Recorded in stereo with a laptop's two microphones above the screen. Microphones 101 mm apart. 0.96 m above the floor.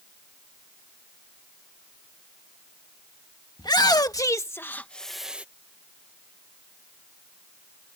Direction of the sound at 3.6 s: 45° left (ahead or behind).